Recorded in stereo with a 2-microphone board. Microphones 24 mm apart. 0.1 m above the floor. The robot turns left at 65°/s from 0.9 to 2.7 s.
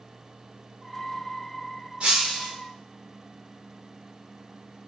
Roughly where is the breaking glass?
Behind right.